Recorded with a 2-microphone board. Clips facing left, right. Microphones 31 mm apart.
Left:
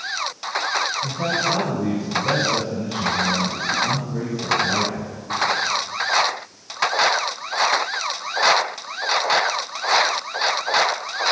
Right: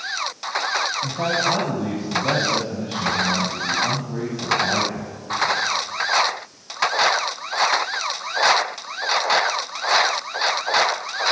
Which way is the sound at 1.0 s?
55° right (ahead or behind).